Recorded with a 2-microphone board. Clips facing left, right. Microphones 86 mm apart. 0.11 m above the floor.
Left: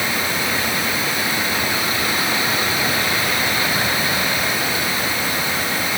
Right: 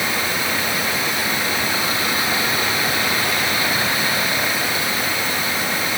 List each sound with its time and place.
Only background noise.